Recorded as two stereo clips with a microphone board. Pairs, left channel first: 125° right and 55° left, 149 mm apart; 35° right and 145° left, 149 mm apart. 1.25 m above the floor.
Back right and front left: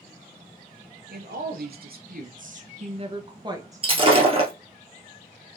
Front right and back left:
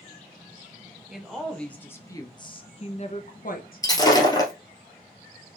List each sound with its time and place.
1.1 s a woman speaking: 60° left, 1.2 m; by 4.2 s 25° right, 1.2 m
3.8 s breaking glass: 20° left, 1.7 m